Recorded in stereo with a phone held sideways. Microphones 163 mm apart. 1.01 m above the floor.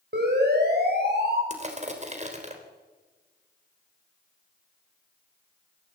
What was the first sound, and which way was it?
A siren, 80° right.